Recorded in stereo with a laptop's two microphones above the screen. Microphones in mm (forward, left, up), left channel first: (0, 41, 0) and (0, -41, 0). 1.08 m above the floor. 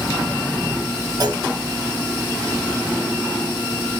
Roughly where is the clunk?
Right.